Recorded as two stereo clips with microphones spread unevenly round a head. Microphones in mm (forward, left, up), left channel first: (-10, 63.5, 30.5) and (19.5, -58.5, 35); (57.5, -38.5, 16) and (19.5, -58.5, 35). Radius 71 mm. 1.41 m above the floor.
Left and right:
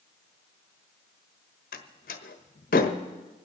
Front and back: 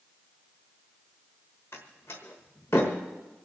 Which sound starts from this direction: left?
A door slam, at 1.7 s.